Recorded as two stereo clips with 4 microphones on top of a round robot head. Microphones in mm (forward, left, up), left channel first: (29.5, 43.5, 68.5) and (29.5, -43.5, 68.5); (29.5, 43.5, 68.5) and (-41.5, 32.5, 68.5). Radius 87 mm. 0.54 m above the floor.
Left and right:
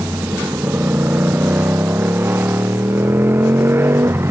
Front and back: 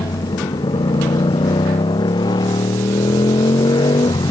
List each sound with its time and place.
0.0 s a motorcycle: 20° right; by 4.3 s 30° right